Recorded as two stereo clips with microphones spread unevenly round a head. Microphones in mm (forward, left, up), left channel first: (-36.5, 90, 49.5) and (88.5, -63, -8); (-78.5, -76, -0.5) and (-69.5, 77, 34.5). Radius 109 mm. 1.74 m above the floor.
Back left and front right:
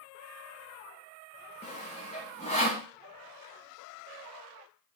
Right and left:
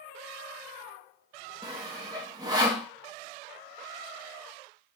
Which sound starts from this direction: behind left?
Sawing, at 1.6 s.